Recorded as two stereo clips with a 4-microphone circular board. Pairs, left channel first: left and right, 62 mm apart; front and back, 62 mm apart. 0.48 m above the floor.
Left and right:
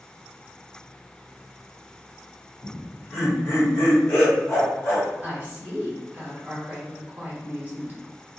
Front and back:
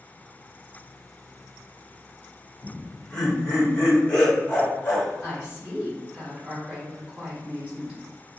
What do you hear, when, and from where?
2.6 s laughter: 90° left, 1.8 m; by 5.1 s 50° left, 2.5 m
5.2 s a woman speaking: 130° right, 1.4 m